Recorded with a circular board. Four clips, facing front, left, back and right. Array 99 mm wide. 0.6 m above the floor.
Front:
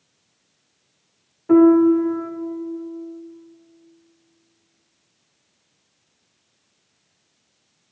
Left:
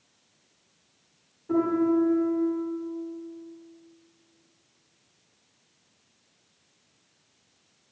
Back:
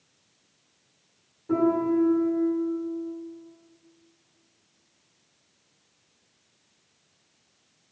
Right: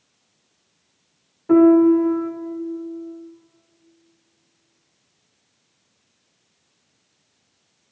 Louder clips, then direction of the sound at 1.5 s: Right 11 dB, front 11 dB; 45° right.